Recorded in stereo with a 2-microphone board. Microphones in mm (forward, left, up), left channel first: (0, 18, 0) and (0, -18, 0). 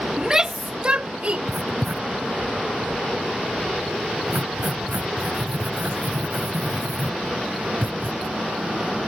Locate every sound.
0.2 s a shout: 15° right (ahead or behind); by 1.4 s 40° right (ahead or behind)
1.5 s writing: 70° right (ahead or behind)